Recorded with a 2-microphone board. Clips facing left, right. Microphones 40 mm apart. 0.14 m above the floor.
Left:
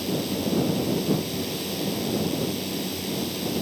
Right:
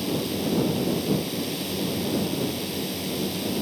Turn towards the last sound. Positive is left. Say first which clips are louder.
# even
turn(degrees=0)  # may be behind; listen again after turning